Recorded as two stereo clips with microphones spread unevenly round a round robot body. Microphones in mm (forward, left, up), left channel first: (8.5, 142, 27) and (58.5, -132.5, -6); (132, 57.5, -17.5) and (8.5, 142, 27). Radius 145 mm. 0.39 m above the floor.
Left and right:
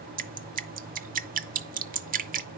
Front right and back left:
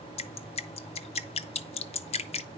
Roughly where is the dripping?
Ahead right.